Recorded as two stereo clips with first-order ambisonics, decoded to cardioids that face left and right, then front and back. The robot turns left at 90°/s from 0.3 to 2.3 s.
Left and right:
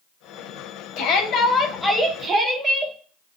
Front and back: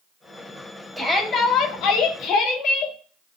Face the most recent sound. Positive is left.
turn(degrees=-30)